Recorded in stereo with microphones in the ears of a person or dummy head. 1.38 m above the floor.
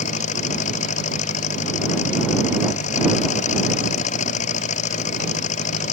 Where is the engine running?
45° left (ahead or behind).